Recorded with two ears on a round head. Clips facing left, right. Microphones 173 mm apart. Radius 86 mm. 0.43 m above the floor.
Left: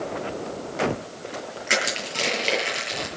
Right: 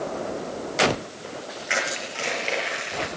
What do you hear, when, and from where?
1.7 s crushing: 50° left (ahead or behind), 8 m